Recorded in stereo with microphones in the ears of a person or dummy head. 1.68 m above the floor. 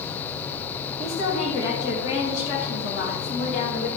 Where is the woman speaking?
85° left, 3 m; by 3.9 s 55° left (ahead or behind), 3 m.